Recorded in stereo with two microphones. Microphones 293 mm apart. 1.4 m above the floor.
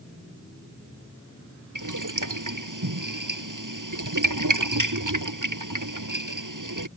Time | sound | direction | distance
1.8 | boiling | 80° right | ?